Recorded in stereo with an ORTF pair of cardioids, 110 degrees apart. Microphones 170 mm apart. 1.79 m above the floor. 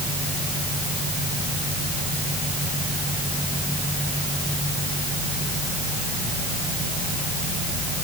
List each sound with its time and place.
Only background noise.